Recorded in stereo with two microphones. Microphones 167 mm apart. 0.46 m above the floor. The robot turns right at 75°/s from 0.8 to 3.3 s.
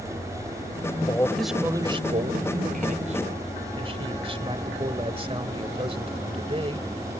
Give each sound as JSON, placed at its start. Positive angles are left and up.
{"t": 1.1, "sound": "a man speaking", "azimuth_deg": 150}